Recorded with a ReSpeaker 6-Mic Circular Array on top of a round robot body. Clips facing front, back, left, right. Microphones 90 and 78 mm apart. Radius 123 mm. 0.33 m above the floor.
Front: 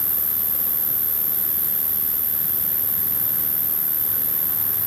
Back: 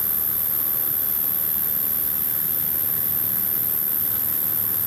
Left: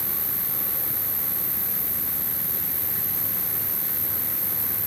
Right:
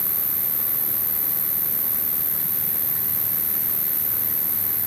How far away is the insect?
About 1.8 m.